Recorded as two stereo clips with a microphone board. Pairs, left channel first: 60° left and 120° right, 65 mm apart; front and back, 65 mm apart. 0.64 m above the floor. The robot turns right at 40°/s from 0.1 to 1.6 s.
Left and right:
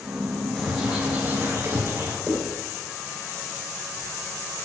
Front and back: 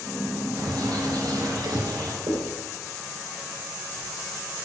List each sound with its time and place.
0.6 s a bird: 150° left, 2.5 m; by 2.2 s 170° right, 2.5 m
2.3 s writing: 160° left, 3 m